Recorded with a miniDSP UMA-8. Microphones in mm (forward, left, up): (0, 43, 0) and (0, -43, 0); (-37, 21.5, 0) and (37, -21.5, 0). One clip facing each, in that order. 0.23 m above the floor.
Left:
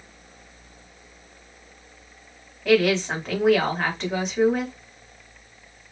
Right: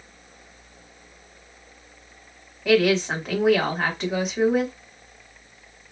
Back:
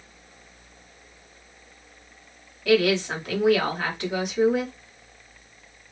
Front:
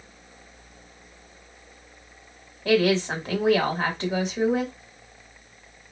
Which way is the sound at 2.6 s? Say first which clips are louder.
Even, even; 5° right.